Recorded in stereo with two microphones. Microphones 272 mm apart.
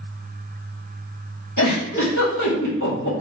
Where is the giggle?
85° left, 1.6 m.